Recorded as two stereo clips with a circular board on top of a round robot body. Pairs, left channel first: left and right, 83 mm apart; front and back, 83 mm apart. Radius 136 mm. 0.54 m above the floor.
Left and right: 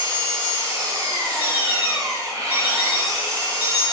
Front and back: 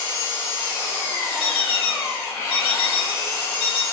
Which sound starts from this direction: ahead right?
An engine running, at 0.0 s.